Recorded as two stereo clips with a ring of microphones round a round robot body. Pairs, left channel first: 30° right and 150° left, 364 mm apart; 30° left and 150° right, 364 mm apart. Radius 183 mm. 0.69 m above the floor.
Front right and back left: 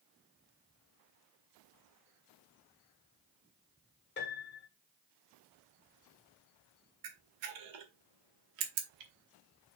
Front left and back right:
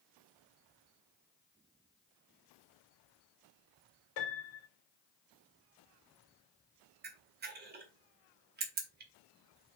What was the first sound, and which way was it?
A piano, 30° left.